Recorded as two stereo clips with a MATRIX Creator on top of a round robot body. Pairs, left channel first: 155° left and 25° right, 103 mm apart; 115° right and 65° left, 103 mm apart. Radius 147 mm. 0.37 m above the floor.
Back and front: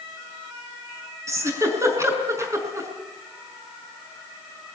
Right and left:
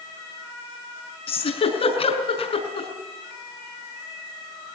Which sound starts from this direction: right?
A giggle, at 1.3 s.